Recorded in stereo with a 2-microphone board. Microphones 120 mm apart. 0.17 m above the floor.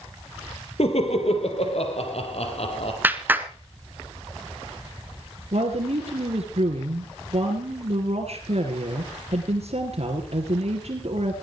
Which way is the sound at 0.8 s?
65° left (ahead or behind).